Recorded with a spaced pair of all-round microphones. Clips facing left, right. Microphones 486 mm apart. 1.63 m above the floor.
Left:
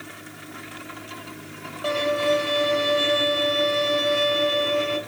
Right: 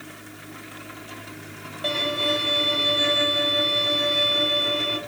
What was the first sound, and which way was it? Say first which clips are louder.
A violin: left 5 dB; 40° right (ahead or behind).